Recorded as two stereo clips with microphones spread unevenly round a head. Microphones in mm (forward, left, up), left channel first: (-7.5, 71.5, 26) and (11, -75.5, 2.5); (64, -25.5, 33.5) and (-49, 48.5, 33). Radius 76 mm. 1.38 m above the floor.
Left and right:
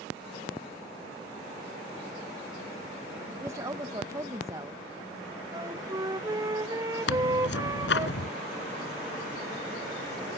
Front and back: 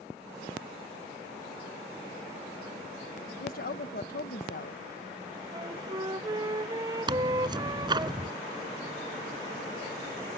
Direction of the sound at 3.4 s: 10° right.